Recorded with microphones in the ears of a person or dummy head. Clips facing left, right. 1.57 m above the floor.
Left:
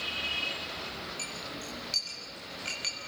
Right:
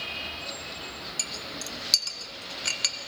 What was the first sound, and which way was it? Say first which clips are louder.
A clink: right 1 dB; 70° right (ahead or behind).